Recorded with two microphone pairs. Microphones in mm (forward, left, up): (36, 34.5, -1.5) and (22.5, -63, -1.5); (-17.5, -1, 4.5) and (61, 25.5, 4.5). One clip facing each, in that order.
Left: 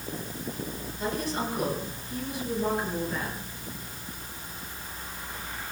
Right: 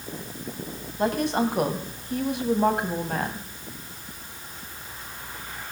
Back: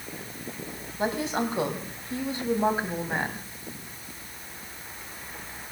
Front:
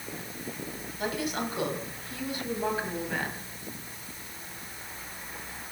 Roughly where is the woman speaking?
Right.